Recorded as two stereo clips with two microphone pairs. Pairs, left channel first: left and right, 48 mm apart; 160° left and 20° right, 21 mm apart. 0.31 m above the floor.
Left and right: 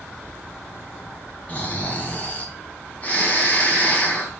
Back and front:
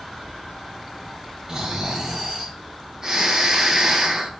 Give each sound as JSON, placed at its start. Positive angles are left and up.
{"t": 1.5, "sound": "snoring", "azimuth_deg": 35, "distance_m": 3.0}